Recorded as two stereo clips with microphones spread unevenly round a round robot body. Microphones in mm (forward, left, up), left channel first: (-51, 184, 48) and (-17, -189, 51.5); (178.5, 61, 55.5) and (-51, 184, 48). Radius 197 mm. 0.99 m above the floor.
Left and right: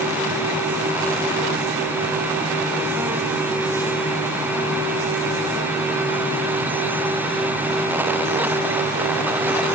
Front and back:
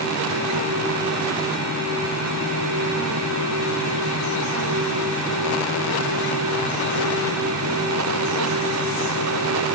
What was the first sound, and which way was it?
Only background noise.